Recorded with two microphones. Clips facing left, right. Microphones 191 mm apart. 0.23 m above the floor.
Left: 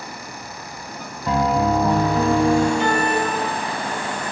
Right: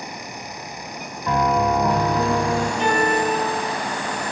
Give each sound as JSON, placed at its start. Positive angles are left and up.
{"t": 1.3, "sound": "a piano", "side_deg": 35, "distance_m": 1.6}
{"t": 2.8, "sound": "a piano", "side_deg": -25, "distance_m": 4.0}